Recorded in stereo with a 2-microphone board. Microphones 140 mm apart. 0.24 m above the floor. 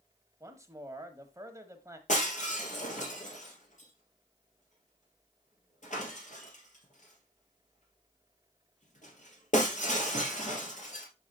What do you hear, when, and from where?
0.4 s a man speaking: 20° right (ahead or behind), 1.1 m
2.1 s breaking glass: 55° left (ahead or behind), 2.0 m